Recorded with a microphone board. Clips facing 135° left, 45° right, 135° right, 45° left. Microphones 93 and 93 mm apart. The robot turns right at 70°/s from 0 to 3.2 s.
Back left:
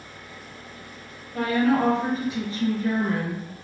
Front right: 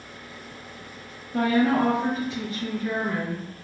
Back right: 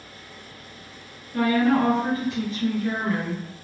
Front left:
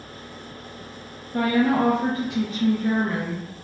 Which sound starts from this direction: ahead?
A woman speaking, at 1.3 s.